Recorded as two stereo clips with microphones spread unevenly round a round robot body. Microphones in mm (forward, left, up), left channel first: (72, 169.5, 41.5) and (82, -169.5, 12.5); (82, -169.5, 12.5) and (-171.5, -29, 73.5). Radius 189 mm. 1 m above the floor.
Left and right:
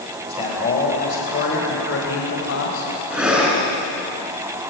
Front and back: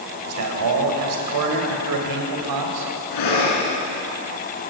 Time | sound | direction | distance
0.3 | a man speaking | 170° left | 4.5 m
3.1 | breathing | straight ahead | 5 m